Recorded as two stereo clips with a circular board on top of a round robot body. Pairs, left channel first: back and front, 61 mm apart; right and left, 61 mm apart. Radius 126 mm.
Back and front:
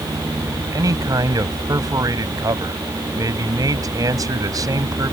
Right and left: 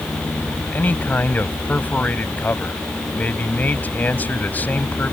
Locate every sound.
0.7 s a man speaking: 25° right